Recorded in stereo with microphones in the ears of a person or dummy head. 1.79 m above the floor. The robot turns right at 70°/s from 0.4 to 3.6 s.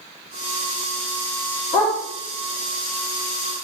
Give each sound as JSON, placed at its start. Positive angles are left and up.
{"t": 1.7, "sound": "a dog barking", "side_deg": 30, "distance_m": 1.9}